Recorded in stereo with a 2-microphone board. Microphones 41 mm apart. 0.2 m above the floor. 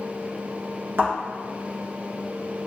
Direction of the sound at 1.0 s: 65° right (ahead or behind).